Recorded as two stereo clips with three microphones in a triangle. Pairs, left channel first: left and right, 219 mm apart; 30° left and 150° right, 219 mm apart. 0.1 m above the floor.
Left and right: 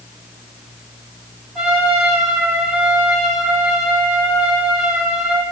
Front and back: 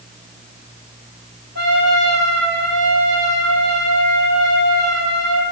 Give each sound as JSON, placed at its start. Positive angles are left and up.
{"t": 1.6, "sound": "a trumpet", "azimuth_deg": -175, "distance_m": 3.0}